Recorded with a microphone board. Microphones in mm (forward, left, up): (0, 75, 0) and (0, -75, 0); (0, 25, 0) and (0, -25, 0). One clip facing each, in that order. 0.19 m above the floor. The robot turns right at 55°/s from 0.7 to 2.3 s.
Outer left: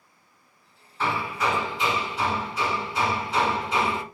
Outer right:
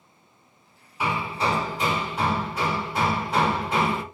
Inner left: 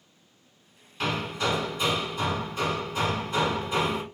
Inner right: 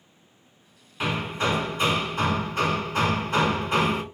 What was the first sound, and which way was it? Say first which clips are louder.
Hammering: even, inner right 2 dB; 165° right.